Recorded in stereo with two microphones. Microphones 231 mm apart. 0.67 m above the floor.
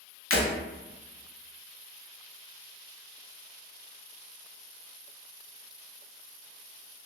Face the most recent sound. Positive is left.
turn(degrees=70)  # may be behind; listen again after turning